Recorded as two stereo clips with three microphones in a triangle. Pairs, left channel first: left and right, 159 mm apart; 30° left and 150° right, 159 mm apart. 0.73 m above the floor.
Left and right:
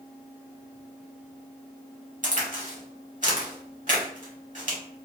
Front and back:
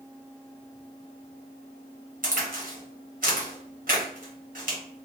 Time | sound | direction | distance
2.2 | a crack | 125° right | 1.5 m